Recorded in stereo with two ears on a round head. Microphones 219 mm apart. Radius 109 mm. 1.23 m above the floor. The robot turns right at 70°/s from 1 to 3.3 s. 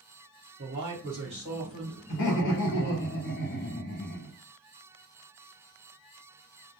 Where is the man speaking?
50° right, 1.3 m; by 3.1 s 95° left, 1.3 m.